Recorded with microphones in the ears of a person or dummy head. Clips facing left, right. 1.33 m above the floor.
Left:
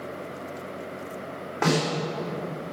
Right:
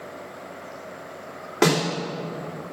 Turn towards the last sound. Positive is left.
turn(degrees=-45)  # may be behind; listen again after turning